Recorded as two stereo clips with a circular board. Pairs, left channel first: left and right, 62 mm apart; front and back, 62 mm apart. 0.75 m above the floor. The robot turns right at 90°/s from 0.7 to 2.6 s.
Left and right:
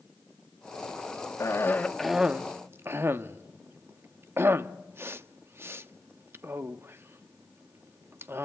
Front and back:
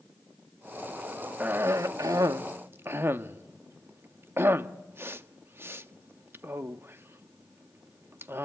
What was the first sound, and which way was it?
A cough, 120° left.